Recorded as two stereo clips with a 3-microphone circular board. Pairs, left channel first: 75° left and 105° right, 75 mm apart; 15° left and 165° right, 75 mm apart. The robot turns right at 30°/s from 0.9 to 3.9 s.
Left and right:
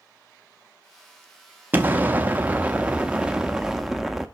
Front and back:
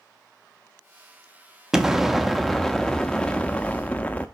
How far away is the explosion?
About 0.6 m.